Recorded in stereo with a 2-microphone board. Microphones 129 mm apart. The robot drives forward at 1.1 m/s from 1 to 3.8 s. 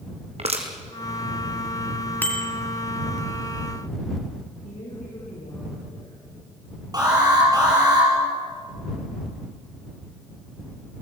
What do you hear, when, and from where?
0.4 s crushing: 50° right (ahead or behind), 3 m
2.2 s a bicycle bell: 15° left (ahead or behind), 2.5 m; by 2.5 s 10° left (ahead or behind), 2.5 m
4.6 s a woman speaking: 80° left, 7.5 m
6.9 s an alarm: 30° right (ahead or behind), 7.5 m